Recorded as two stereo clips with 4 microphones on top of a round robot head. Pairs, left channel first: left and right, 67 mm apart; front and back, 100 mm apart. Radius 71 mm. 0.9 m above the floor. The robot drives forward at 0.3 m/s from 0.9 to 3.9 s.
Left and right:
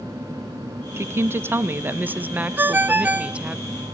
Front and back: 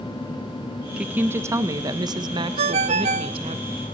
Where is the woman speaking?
110° right, 0.6 m; by 3.6 s 160° right, 1.0 m.